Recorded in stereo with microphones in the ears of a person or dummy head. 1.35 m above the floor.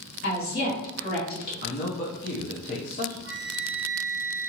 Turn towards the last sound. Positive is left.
turn(degrees=30)  # may be behind; listen again after turning